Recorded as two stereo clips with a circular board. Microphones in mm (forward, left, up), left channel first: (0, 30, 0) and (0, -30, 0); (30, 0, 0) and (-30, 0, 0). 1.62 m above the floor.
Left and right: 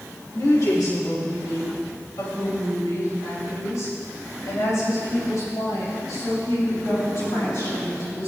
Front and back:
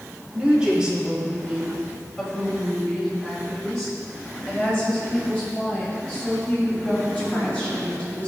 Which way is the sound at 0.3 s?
105° left.